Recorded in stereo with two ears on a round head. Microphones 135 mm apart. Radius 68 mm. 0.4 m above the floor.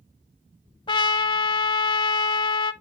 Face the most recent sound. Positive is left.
turn(degrees=35)  # may be behind; listen again after turning